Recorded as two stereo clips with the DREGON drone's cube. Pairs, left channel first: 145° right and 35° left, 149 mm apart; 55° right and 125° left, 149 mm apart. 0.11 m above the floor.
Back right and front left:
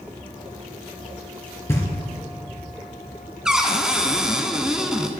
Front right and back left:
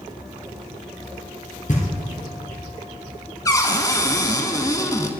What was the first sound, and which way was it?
Knocking, 75° right.